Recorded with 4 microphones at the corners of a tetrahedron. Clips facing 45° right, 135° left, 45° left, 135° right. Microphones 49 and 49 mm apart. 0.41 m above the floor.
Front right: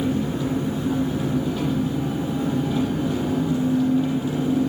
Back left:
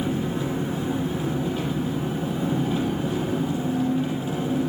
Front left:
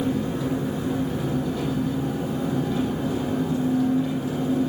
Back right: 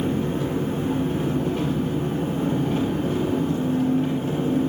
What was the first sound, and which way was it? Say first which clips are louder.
An engine running: front right 2 dB, back right 1 dB; 160° right.